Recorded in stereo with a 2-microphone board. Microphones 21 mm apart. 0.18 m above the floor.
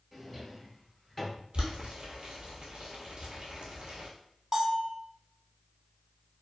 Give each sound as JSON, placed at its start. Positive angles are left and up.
{"t": 0.1, "sound": "a drawer", "side_deg": 5, "distance_m": 1.4}
{"t": 1.5, "sound": "boiling", "side_deg": -75, "distance_m": 1.1}
{"t": 4.5, "sound": "a bell", "side_deg": -25, "distance_m": 0.8}